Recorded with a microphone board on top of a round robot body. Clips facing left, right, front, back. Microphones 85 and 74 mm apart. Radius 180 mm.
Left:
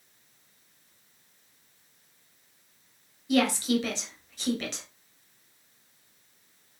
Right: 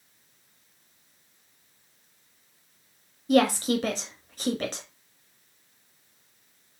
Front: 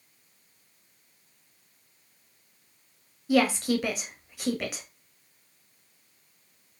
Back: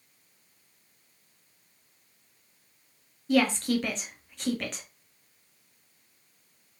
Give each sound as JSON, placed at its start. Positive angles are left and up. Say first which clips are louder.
{"t": 3.3, "sound": "a woman speaking", "louder": "right 3 dB, front 1 dB", "azimuth_deg": -80, "distance_m": 1.1}